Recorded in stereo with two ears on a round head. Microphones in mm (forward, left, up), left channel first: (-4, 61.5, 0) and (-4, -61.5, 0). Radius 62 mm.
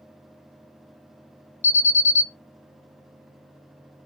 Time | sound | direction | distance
1.6 | an alarm | 50° left (ahead or behind) | 1.1 m